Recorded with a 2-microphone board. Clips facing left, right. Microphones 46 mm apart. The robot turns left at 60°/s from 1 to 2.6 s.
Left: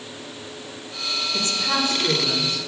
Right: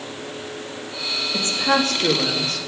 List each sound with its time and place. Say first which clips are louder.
1.3 s a woman speaking: right 6 dB; 35° right, 1.6 m; by 2.6 s 110° right, 1.6 m